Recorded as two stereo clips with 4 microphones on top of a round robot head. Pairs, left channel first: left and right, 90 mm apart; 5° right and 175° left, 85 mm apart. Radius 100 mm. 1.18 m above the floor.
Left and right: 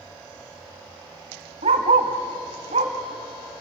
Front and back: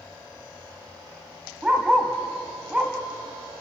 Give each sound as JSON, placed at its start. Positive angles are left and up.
{"t": 1.6, "sound": "a dog barking", "azimuth_deg": -100, "distance_m": 1.8}